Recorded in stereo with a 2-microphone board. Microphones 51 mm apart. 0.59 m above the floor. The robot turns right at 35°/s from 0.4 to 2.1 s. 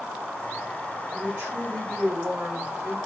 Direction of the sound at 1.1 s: 45° right.